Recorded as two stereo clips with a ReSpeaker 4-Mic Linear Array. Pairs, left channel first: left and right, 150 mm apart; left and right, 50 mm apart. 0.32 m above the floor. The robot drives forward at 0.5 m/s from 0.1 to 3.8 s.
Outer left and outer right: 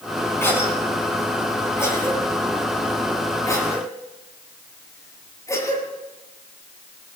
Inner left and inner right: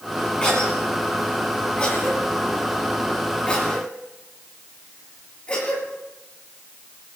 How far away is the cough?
About 8 m.